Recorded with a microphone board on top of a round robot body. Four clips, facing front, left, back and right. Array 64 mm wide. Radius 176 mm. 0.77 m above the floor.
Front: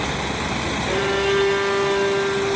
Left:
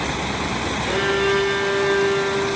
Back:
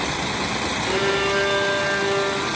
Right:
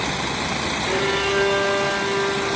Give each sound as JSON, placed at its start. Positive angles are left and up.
{"t": 0.8, "sound": "a violin", "azimuth_deg": 105, "distance_m": 8.5}